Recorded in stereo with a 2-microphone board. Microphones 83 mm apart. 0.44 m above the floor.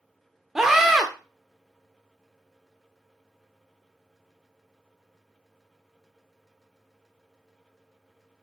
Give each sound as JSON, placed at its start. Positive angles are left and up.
{"t": 0.6, "sound": "a scream", "side_deg": -5, "distance_m": 0.8}